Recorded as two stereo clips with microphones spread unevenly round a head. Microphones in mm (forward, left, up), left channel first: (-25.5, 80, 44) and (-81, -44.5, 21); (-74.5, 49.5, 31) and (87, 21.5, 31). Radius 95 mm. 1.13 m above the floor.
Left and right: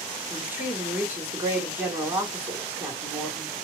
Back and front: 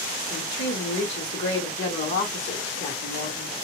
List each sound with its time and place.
0.3 s a woman speaking: 175° left, 1.6 m